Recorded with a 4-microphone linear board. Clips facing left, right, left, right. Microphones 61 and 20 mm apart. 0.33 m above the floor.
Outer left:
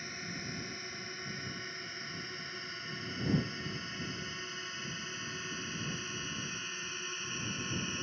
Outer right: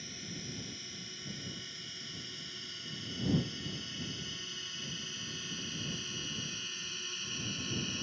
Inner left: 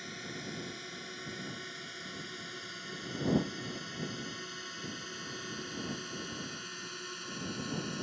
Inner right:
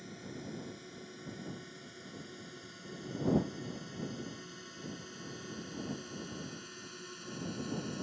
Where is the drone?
45° left (ahead or behind); by 8.0 s 30° left (ahead or behind).